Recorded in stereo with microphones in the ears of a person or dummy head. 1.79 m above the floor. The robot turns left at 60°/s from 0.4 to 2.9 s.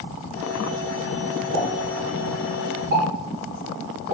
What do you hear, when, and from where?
1.5 s a pop: 35° right (ahead or behind), 3 m; by 4.1 s 65° right (ahead or behind), 3 m